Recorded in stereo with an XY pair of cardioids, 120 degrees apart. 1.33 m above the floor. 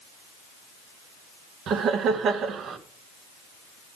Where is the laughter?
60° right, 1.2 m.